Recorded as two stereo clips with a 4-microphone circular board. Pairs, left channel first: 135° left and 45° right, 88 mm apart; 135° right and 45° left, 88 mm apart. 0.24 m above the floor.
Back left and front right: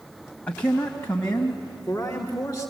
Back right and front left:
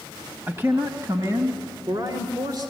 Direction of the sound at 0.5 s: 75° left.